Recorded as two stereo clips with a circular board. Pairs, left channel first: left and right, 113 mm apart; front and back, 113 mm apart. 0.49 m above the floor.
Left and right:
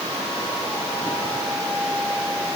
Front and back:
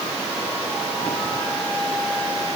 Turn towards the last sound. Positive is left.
No sound to turn to.